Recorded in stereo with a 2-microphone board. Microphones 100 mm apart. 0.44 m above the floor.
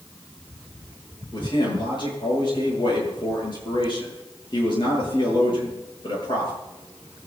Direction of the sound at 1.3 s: 50° left (ahead or behind).